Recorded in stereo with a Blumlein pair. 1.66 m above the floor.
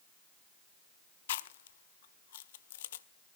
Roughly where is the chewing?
Ahead left.